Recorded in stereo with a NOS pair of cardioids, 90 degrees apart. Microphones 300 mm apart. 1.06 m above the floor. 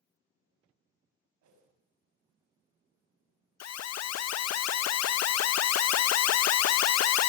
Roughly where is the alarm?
Ahead left.